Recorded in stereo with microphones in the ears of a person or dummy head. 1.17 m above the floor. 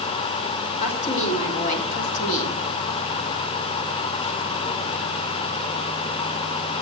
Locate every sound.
0.8 s a woman speaking: 45° left (ahead or behind), 4 m; by 2.6 s 50° left (ahead or behind), 3 m